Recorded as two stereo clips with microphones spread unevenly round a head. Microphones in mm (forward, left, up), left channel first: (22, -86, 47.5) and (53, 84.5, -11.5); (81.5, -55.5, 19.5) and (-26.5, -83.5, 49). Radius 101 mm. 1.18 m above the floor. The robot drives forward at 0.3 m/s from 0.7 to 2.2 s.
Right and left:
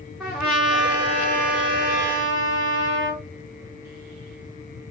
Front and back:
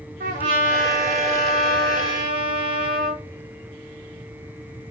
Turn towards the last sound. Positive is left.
turn(degrees=175)